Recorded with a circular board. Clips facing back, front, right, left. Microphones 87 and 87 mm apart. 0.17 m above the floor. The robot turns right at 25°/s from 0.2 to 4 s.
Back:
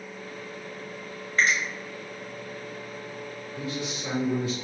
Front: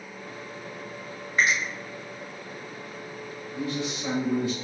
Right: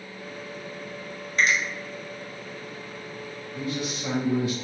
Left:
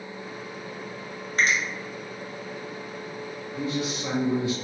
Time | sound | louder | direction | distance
1.4 | a finger snap | even, right 1 dB | 65° left | 1.2 m
3.5 | a man speaking | front 3 dB, left 2 dB | 35° left | 1.8 m